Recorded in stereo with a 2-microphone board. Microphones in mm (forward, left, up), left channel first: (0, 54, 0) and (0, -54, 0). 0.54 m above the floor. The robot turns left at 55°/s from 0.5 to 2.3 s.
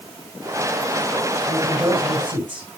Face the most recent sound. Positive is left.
turn(degrees=-55)  # may be behind; listen again after turning